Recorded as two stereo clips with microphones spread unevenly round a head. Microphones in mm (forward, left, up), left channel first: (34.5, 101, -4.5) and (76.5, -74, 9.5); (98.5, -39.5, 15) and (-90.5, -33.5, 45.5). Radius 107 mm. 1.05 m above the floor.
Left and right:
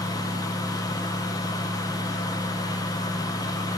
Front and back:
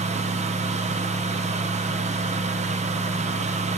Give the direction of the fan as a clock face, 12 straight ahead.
7 o'clock.